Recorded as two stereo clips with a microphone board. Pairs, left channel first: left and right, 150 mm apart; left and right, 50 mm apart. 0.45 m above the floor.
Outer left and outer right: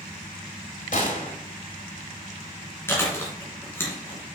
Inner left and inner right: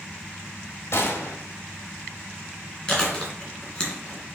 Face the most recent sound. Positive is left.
turn(degrees=15)  # may be behind; listen again after turning